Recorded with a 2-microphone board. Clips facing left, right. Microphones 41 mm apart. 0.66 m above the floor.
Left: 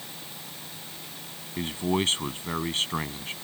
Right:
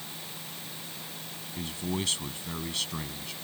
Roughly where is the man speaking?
Left.